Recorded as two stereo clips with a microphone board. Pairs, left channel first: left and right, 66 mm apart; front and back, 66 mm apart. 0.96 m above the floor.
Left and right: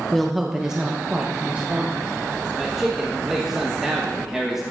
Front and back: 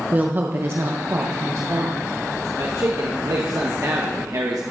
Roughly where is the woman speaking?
Behind.